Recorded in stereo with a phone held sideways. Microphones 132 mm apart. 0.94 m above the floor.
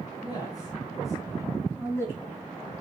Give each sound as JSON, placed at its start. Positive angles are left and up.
{"t": 0.2, "sound": "a man speaking", "side_deg": 35, "distance_m": 5.5}